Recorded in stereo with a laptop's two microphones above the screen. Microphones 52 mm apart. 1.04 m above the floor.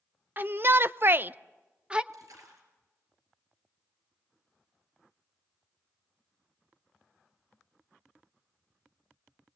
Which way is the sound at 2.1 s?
80° right.